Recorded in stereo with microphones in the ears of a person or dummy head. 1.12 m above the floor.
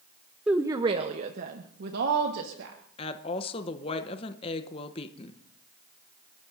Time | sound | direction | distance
0.5 | a woman speaking | 5° right (ahead or behind) | 0.7 m
3.0 | a woman speaking | 25° left (ahead or behind) | 0.8 m